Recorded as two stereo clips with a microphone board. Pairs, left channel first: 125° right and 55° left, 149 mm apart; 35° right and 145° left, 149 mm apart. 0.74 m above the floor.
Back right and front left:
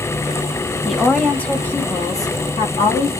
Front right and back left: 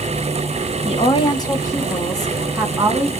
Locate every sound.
0.8 s a woman speaking: 35° right, 1.0 m; by 3.1 s 160° right, 1.0 m